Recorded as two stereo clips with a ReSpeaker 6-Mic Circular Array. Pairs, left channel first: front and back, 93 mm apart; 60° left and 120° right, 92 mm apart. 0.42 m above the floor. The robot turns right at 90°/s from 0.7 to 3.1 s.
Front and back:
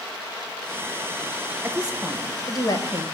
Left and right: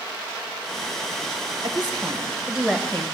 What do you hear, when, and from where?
1.6 s a woman speaking: 120° right, 1.7 m; by 3.0 s 5° left, 1.7 m